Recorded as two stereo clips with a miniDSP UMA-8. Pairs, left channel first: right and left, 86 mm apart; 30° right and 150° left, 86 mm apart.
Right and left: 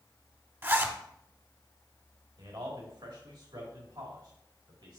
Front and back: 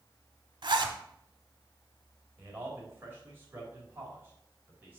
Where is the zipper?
150° left, 1.0 m.